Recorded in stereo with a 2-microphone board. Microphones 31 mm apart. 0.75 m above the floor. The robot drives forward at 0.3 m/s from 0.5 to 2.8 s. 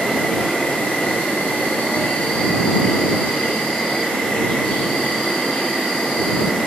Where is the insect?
65° left (ahead or behind), 0.7 m; by 6.7 s 50° left (ahead or behind), 0.8 m.